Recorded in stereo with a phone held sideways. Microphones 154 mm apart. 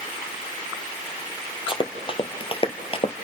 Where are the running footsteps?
35° left (ahead or behind), 1.7 m.